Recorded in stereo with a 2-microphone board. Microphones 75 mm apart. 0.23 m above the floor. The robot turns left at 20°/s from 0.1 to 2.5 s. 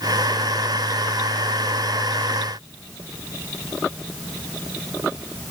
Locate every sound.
Only background noise.